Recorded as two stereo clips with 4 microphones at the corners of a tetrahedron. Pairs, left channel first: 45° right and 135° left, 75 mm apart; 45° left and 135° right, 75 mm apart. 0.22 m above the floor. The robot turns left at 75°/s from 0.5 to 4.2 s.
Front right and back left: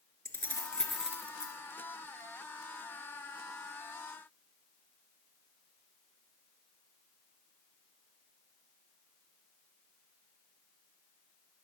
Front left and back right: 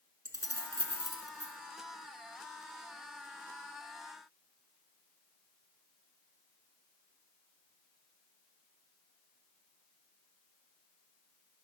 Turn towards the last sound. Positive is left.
turn(degrees=-20)